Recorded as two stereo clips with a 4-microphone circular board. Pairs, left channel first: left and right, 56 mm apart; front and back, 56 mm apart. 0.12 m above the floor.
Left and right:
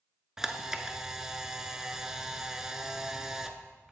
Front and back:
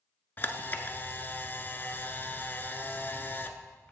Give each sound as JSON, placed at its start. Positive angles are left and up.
{"t": 0.4, "sound": "a camera shutter", "azimuth_deg": -15, "distance_m": 0.5}